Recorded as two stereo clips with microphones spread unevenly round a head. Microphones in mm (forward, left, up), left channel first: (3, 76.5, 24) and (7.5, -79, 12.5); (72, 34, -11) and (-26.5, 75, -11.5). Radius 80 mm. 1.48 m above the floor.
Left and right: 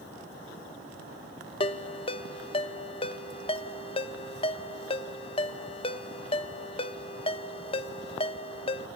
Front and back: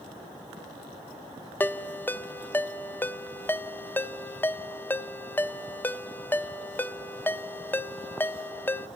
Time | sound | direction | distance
1.6 | a ringtone | 45° left | 0.9 m